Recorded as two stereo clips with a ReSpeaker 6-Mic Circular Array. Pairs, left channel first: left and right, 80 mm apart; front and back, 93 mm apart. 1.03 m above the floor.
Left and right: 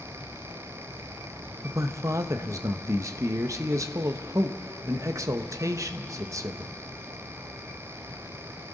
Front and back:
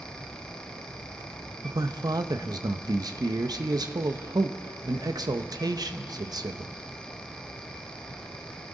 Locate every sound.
1.6 s a man speaking: 135° right, 0.7 m